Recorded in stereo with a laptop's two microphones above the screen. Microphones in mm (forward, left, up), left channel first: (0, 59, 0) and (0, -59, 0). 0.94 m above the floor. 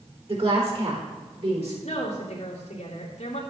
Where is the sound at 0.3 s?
50° right (ahead or behind), 3.5 m; by 1.7 s 60° right (ahead or behind), 4.5 m.